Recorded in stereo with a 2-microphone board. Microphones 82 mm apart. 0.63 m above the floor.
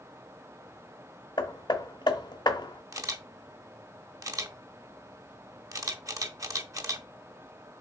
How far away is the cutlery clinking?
No cutlery clinking in this recording.